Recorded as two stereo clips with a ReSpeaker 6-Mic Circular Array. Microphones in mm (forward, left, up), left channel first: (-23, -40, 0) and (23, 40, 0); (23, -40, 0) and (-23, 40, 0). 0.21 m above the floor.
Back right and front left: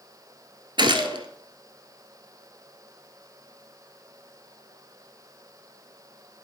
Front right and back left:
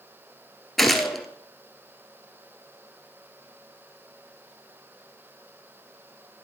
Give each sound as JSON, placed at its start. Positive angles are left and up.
{"t": 0.8, "sound": "a gunshot", "azimuth_deg": 25, "distance_m": 1.1}